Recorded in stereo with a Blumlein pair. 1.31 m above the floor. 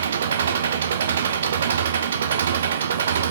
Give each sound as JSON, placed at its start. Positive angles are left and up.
{"t": 0.0, "sound": "an engine running", "azimuth_deg": -65, "distance_m": 0.8}